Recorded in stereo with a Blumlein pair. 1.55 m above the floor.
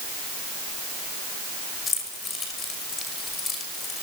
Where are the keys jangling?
20° left, 6 m.